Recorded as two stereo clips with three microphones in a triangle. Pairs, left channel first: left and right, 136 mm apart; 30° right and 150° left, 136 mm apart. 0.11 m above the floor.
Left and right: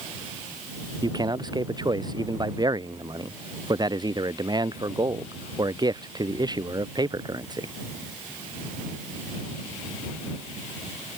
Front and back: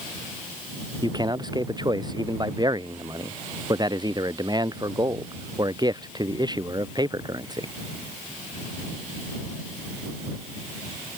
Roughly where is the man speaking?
Behind right.